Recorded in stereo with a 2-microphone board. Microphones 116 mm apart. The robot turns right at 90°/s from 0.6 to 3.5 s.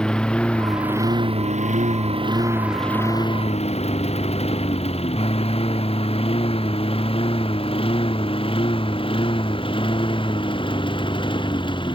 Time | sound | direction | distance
0.0 | a lawn mower | 5° left (ahead or behind) | ?